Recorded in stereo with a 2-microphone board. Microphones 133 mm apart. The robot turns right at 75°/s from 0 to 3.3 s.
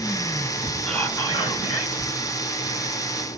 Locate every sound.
0.9 s whispering: 10° left, 1.1 m; by 2.1 s 100° left, 1.1 m